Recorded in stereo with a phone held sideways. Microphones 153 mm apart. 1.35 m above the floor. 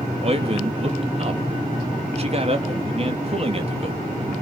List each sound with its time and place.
0.2 s a man speaking: 40° right (ahead or behind), 2.5 m